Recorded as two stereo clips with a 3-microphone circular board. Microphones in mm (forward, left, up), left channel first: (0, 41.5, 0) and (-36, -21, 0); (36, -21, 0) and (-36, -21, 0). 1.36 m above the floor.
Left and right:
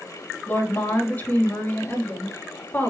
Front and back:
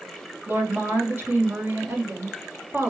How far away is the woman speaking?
About 3.5 m.